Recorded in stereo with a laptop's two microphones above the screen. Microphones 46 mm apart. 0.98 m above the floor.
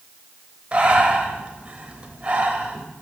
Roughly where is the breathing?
Right.